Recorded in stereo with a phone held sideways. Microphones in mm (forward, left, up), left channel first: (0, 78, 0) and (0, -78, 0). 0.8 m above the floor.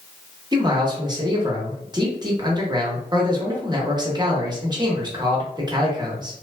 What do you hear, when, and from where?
0.5 s a man speaking: 25° right (ahead or behind), 0.8 m